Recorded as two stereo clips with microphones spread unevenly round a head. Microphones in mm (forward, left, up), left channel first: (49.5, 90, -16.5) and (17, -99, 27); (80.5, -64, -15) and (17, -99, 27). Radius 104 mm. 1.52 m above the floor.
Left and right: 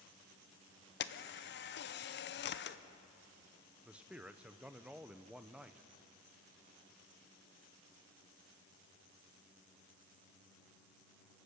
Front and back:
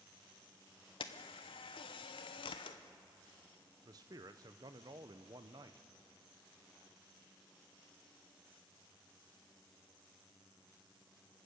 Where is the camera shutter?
45° left, 0.7 m.